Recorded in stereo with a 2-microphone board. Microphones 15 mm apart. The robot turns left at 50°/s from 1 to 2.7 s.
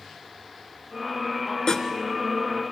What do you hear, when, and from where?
1.7 s sawing: 45° left (ahead or behind), 1.8 m